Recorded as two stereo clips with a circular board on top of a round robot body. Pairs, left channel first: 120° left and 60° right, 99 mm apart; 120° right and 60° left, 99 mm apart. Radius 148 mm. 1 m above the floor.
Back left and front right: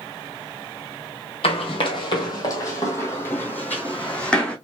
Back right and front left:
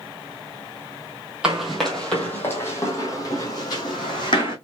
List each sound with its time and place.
1.4 s running footsteps: 140° left, 1.4 m; by 4.5 s 160° right, 2 m